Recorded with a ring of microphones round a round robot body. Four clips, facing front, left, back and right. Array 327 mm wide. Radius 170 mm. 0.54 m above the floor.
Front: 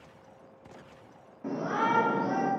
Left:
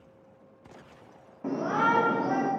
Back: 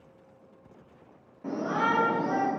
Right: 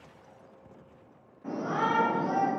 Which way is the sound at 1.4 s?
80° left.